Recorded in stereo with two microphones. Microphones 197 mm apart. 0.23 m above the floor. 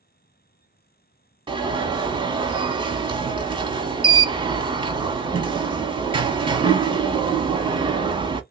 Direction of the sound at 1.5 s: 25° right (ahead or behind).